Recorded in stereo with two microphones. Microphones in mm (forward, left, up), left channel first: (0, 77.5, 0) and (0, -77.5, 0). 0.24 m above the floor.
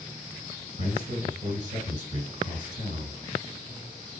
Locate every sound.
0.8 s a man speaking: 55° right (ahead or behind), 2 m